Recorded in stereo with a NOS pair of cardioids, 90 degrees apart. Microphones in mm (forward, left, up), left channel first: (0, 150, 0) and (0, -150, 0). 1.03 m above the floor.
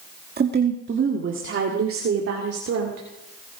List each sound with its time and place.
0.4 s a woman speaking: 35° right, 1.9 m; by 3.0 s 55° right, 3 m